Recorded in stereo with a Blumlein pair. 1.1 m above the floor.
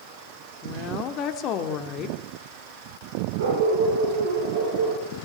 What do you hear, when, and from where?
0.6 s a woman speaking: 35° left, 2.5 m
3.4 s a dog barking: 60° right, 8 m